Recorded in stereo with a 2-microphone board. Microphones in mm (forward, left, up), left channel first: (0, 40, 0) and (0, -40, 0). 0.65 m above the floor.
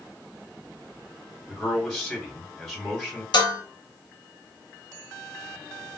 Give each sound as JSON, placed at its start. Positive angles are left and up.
{"t": 1.5, "sound": "a man speaking", "side_deg": 0, "distance_m": 2.0}
{"t": 3.3, "sound": "dishes clattering", "side_deg": 65, "distance_m": 0.8}